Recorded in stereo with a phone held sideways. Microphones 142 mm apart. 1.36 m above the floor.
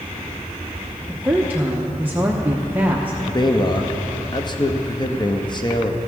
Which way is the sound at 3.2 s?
30° left (ahead or behind).